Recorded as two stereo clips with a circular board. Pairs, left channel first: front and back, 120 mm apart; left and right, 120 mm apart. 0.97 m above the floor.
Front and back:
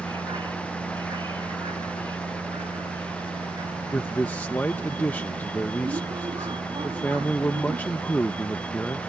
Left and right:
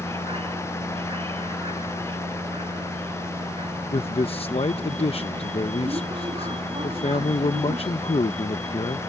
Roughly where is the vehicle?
Behind right.